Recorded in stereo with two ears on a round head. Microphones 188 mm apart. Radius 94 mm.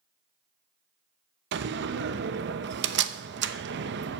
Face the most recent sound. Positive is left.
turn(degrees=-60)  # may be behind; listen again after turning